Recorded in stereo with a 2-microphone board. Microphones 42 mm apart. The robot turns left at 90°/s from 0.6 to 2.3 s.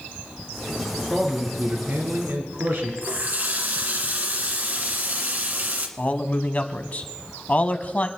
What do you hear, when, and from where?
1.1 s a man speaking: 20° left, 2.5 m; by 2.9 s 85° right, 2.5 m
3.0 s a running tap: 45° right (ahead or behind), 1.6 m
6.0 s a man speaking: 35° left (ahead or behind), 1.2 m